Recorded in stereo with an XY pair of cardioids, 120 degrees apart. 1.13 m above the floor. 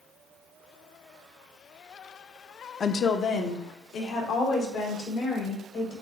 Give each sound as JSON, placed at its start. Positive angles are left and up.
{"t": 2.8, "sound": "a woman speaking", "azimuth_deg": 35, "distance_m": 0.5}